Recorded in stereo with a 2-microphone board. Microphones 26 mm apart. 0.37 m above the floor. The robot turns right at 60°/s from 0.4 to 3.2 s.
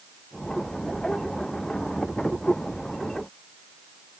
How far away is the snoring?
I don't hear snoring.